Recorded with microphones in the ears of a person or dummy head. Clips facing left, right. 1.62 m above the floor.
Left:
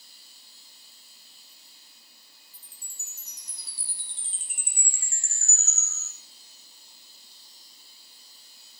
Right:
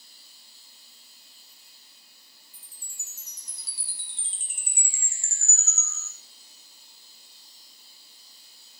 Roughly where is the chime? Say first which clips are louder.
Even; right.